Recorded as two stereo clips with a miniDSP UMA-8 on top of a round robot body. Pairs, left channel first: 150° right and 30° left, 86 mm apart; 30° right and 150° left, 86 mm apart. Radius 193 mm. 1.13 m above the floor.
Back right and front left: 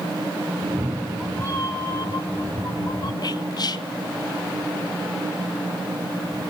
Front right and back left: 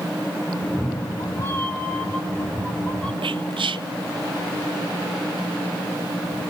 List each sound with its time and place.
0.6 s a cat meowing: 40° left, 0.6 m; by 3.1 s 105° right, 3 m
3.2 s whispering: 170° left, 0.5 m